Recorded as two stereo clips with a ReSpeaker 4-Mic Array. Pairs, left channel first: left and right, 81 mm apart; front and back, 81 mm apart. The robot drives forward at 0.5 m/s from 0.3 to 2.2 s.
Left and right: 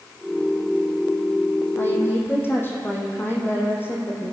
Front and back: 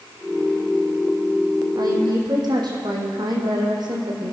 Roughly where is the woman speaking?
Behind left.